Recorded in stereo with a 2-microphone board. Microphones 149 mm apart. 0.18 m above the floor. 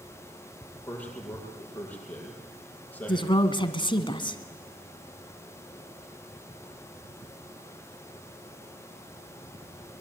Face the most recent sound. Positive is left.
turn(degrees=30)  # may be behind; listen again after turning